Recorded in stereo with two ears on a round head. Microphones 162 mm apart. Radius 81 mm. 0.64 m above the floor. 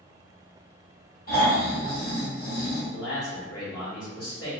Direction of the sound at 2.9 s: 70° left (ahead or behind).